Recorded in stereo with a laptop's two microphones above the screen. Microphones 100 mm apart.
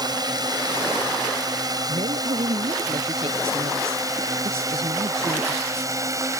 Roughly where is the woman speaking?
Right.